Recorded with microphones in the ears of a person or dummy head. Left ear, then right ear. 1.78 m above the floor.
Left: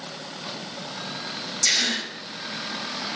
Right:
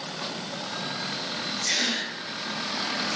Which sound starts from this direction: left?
A gasp, at 1.6 s.